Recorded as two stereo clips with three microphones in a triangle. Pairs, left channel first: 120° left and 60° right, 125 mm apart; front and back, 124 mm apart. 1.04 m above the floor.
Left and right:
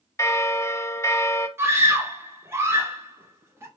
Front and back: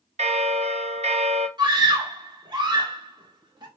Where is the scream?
130° right, 0.9 m.